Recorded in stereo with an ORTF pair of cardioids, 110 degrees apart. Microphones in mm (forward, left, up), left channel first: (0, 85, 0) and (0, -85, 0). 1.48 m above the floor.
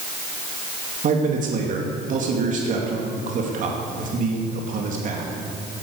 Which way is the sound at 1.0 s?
50° right.